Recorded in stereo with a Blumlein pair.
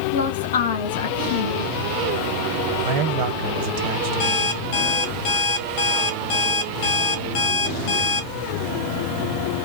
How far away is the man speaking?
About 0.6 m.